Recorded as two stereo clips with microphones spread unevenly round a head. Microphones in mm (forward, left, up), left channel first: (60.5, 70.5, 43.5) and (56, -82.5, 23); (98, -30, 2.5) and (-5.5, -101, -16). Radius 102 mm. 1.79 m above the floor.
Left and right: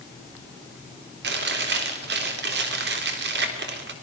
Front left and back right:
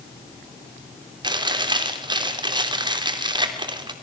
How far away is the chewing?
About 3.5 m.